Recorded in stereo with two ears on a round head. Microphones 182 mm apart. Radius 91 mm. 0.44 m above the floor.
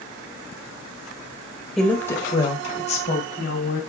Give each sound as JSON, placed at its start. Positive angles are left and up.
{"t": 1.8, "sound": "a woman speaking", "side_deg": 0, "distance_m": 1.9}